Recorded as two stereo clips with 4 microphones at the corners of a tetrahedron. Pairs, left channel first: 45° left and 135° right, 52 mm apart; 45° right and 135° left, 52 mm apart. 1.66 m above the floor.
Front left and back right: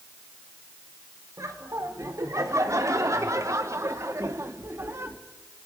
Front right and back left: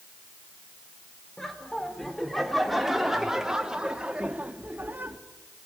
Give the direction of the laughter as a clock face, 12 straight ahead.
4 o'clock.